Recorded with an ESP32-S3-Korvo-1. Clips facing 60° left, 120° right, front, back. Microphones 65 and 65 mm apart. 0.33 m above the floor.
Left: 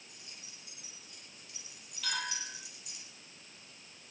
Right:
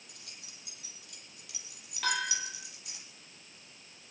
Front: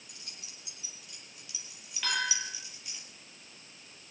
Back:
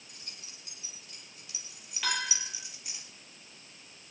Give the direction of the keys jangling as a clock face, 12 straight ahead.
4 o'clock.